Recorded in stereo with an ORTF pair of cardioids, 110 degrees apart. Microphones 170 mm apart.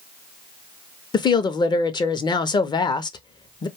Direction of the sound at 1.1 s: 25° left.